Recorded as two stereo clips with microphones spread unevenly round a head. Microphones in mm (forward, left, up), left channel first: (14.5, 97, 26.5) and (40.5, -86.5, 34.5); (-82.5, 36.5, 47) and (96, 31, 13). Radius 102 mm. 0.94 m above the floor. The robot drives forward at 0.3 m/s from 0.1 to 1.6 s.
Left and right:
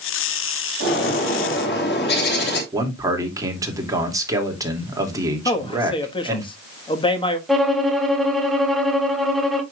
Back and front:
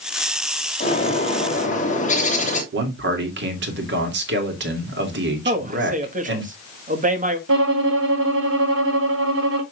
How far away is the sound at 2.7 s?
About 2.5 m.